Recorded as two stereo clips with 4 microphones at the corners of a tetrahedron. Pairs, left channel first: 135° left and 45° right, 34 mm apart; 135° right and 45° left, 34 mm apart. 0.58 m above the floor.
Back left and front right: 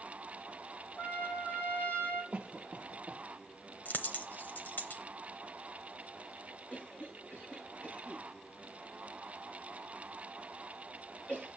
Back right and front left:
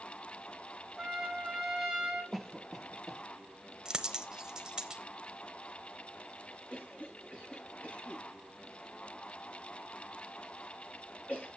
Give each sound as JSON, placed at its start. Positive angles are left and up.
{"t": 1.0, "sound": "a trumpet", "azimuth_deg": 140, "distance_m": 1.9}
{"t": 2.3, "sound": "a cough", "azimuth_deg": -40, "distance_m": 0.7}
{"t": 3.9, "sound": "a dropped coin", "azimuth_deg": 115, "distance_m": 0.8}
{"t": 6.7, "sound": "a cough", "azimuth_deg": -170, "distance_m": 7.5}